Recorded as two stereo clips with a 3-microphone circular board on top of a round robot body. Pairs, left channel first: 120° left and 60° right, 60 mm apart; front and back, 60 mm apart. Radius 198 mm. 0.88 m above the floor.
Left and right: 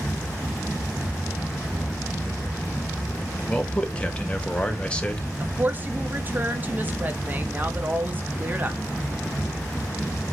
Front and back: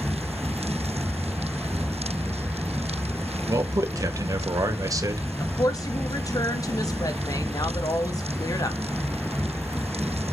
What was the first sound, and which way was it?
A man speaking, 170° right.